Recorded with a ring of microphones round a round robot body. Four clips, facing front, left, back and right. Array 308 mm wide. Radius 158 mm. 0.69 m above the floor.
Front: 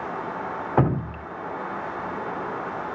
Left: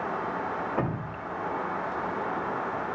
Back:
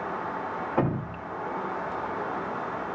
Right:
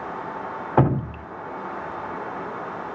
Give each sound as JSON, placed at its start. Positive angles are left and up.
{"t": 0.8, "sound": "dripping", "azimuth_deg": -65, "distance_m": 0.5}